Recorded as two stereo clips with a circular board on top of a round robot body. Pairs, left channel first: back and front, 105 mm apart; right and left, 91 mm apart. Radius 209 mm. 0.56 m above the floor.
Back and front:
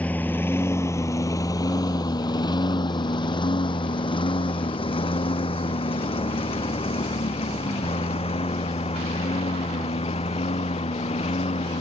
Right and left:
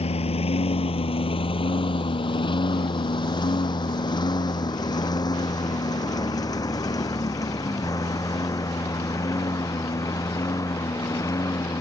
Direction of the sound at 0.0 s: 100° right.